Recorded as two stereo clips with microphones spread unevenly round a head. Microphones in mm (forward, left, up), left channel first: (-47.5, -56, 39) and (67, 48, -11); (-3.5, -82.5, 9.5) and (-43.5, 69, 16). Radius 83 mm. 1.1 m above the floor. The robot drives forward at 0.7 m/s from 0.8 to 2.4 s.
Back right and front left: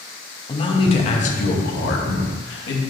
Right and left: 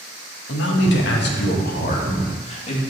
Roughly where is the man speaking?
Right.